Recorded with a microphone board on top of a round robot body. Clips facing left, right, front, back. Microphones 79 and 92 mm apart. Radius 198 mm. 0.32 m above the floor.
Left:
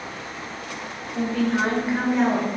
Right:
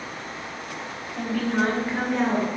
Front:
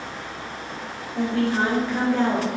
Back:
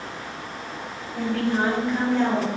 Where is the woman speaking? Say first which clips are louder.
Left 2 dB, front 1 dB; 55° left, 1.1 m; by 2.5 s 15° left, 1.5 m.